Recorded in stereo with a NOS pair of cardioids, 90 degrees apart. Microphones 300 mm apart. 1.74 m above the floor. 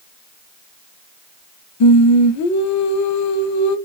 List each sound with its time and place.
1.8 s singing: 65° left, 0.6 m